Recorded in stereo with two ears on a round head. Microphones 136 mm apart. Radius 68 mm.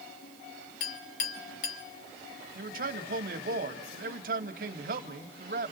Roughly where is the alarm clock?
I don't hear an alarm clock.